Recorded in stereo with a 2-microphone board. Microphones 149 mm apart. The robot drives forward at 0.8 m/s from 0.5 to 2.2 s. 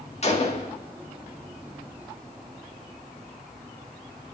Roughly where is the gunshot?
Left.